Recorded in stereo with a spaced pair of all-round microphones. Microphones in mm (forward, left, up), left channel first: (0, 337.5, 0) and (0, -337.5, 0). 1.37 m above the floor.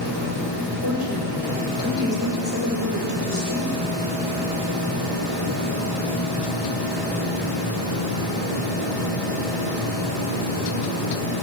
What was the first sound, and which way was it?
A woman speaking, 25° right (ahead or behind).